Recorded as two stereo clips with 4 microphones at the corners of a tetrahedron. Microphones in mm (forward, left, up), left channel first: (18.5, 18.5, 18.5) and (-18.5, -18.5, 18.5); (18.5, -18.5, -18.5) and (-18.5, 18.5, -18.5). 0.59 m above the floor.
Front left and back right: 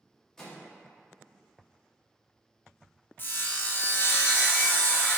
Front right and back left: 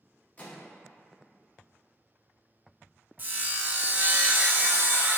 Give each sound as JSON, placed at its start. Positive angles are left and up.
{"t": 0.4, "sound": "a microwave", "azimuth_deg": -25, "distance_m": 0.8}
{"t": 3.2, "sound": "sawing", "azimuth_deg": 90, "distance_m": 0.5}